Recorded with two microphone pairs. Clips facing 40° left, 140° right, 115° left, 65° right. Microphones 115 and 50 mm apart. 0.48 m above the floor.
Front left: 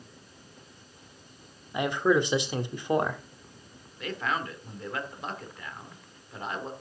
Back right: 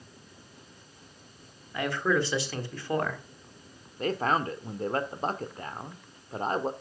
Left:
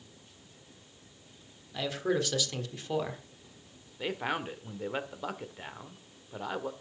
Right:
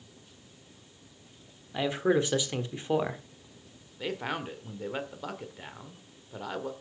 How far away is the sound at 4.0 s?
About 1.3 m.